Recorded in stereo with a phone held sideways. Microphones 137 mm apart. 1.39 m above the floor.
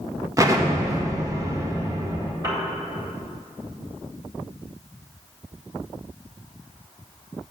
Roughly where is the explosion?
Right.